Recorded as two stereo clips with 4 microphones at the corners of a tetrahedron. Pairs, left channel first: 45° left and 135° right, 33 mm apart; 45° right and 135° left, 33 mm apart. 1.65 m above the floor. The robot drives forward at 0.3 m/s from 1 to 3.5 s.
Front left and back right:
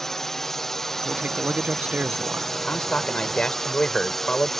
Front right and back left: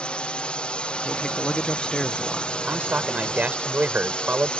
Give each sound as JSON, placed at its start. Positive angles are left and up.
{"t": 0.0, "sound": "a drone", "azimuth_deg": -25}
{"t": 1.0, "sound": "a man speaking", "azimuth_deg": -100}
{"t": 2.6, "sound": "a man speaking", "azimuth_deg": 100}